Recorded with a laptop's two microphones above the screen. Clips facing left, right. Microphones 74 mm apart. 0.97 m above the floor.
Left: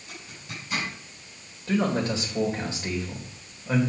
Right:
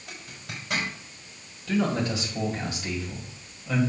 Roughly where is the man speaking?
Left.